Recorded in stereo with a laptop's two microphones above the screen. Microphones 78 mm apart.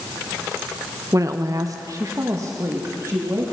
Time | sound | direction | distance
1.1 | a woman speaking | 45° right (ahead or behind) | 0.6 m